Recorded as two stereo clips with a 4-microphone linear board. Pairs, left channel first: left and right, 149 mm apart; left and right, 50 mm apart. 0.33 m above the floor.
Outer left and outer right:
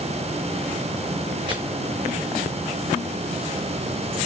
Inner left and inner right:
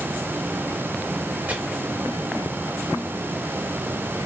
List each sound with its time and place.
1.5 s chopping: 30° right (ahead or behind), 0.9 m